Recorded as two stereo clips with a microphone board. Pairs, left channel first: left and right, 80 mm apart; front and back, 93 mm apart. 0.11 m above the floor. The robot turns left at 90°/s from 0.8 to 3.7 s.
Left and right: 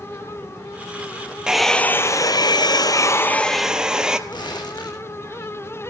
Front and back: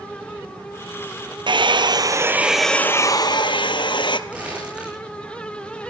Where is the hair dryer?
170° right, 1.3 m; by 4.2 s 10° right, 1.3 m.